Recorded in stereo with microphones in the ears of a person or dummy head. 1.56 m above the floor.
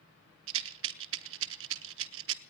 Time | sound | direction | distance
0.5 | a rattle | 80° right | 1.0 m